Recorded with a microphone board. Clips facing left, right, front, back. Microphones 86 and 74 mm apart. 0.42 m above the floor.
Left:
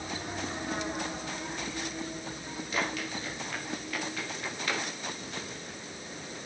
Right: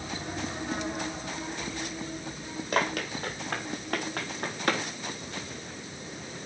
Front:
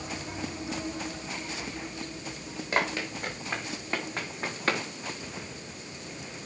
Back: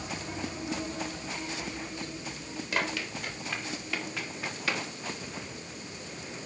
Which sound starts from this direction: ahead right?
Running footsteps, at 2.7 s.